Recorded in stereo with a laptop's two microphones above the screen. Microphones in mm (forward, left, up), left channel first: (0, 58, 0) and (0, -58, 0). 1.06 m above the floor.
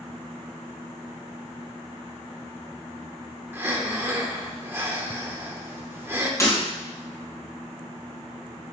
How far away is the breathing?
About 1.0 m.